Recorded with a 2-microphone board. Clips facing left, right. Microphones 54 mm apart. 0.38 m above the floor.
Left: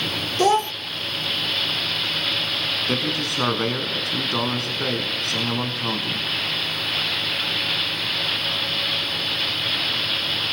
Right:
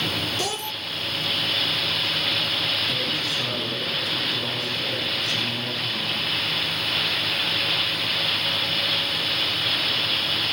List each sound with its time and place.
0.4 s a child speaking: 45° left (ahead or behind), 0.7 m
2.9 s a man speaking: 70° left (ahead or behind), 4.5 m